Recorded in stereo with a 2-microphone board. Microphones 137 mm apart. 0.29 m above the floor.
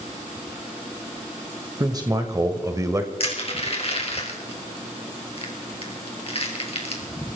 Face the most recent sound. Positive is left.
turn(degrees=45)  # may be behind; listen again after turning